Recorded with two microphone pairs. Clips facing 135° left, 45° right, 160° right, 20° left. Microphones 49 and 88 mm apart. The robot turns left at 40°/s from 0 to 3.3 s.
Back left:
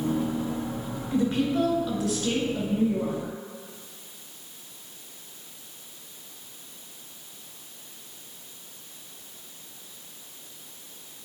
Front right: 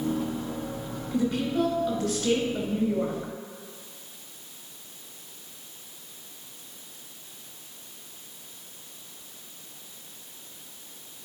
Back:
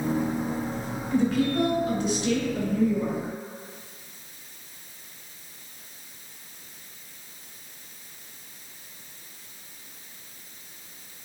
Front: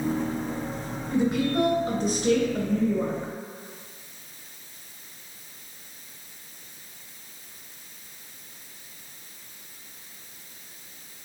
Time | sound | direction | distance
1.1 | a woman speaking | 90° left | 2.5 m